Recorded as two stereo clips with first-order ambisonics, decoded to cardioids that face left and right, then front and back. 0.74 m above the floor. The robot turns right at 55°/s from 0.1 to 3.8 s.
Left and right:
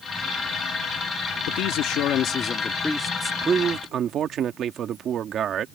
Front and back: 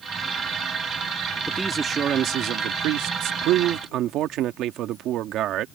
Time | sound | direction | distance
1.5 | a man speaking | 90° left | ?